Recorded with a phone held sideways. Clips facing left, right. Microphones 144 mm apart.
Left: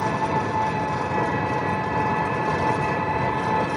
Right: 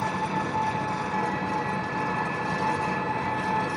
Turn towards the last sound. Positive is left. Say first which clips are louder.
# left 5 dB
turn(degrees=80)